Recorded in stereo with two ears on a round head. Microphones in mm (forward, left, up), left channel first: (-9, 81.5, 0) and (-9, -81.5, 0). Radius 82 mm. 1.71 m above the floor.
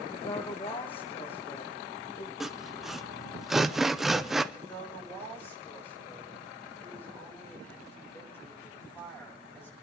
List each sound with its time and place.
0.1 s a woman speaking: 30° left (ahead or behind), 1.5 m
2.4 s sawing: centre (ahead or behind), 0.6 m
4.5 s a woman speaking: 15° left (ahead or behind), 6.5 m